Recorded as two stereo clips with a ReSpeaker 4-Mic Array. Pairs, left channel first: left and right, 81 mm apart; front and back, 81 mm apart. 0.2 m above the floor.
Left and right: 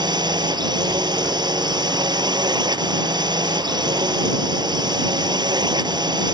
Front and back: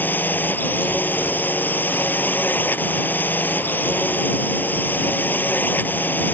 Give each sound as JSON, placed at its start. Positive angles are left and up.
{"t": 0.0, "sound": "a drone", "azimuth_deg": -65}